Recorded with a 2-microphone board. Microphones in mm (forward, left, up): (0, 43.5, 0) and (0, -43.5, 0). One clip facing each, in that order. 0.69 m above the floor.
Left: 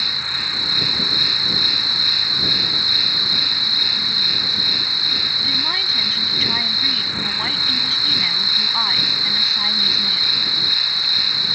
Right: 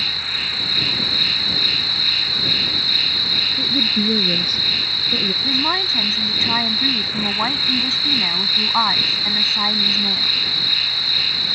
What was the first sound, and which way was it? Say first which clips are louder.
An insect: left 1 dB; 20° left (ahead or behind).